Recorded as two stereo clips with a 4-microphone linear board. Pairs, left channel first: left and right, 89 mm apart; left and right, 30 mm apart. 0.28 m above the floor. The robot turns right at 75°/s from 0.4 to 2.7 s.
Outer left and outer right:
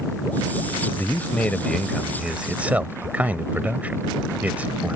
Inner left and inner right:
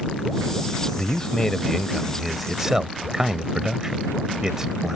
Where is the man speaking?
20° left (ahead or behind); by 5.0 s 15° right (ahead or behind).